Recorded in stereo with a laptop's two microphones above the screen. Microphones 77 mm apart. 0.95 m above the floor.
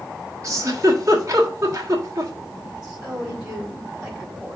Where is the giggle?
45° right (ahead or behind), 1.4 m.